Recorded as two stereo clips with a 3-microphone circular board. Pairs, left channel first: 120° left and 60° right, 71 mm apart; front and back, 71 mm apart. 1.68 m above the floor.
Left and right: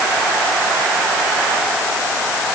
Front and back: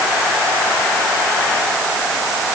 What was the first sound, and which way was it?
Only background noise.